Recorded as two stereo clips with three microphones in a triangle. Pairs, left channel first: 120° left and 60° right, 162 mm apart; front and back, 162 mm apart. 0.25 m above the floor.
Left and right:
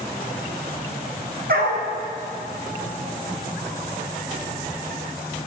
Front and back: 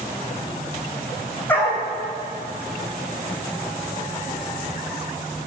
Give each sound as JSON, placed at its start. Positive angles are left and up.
{"t": 1.5, "sound": "a dog barking", "azimuth_deg": -80, "distance_m": 3.5}